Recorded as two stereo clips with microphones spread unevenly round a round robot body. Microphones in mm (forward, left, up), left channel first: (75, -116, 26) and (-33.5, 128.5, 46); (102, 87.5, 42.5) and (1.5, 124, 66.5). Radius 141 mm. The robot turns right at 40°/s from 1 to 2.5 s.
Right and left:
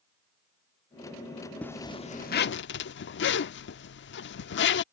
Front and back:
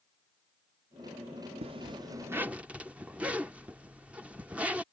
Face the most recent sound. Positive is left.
turn(degrees=-115)